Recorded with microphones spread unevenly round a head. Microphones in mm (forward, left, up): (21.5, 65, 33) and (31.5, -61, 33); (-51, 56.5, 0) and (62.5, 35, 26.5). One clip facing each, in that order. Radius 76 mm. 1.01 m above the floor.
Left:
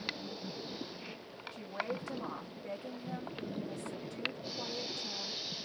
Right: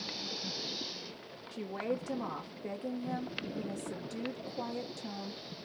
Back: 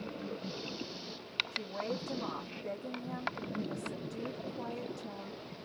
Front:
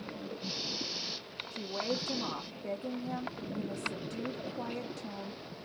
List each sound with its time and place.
1.5 s a woman speaking: 80° right, 1.0 m